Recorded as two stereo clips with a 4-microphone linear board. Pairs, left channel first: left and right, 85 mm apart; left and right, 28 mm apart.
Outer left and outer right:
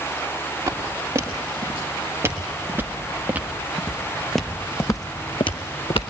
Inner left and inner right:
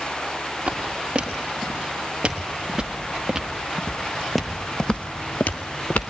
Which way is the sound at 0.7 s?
35° right (ahead or behind).